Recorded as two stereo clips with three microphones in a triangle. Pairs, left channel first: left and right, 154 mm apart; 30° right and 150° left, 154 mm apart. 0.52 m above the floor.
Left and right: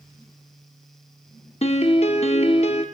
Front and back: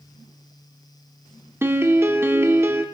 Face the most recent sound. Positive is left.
turn(degrees=85)